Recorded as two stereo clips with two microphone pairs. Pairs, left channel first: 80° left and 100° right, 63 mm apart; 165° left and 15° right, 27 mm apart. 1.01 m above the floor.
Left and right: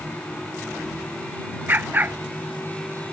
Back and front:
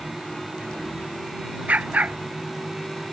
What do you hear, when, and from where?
1.7 s a dog barking: 40° right